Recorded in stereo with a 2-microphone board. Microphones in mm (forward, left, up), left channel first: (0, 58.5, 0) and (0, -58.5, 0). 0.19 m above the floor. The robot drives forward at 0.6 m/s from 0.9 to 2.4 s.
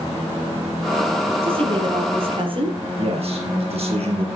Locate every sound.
1.4 s a woman speaking: 50° right (ahead or behind), 5.5 m; by 2.8 s 45° right (ahead or behind), 5.5 m
3.0 s a man speaking: 55° right (ahead or behind), 5.5 m